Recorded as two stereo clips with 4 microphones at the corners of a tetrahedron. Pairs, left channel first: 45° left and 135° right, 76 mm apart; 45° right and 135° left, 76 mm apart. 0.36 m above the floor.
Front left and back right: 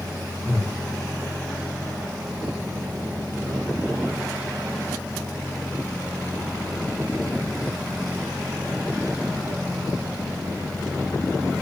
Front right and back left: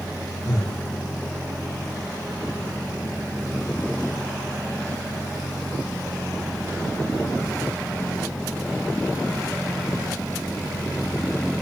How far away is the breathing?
About 5 m.